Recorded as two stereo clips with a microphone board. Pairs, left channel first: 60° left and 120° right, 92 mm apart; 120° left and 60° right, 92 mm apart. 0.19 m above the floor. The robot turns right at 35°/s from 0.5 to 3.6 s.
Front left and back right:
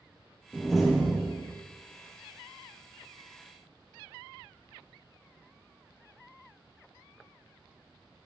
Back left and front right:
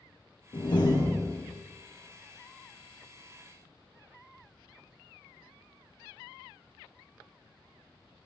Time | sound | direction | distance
0.5 | a door slam | 140° left | 3.5 m